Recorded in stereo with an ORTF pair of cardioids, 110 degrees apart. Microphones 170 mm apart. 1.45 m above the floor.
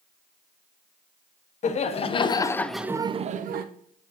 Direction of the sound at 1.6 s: 45° left.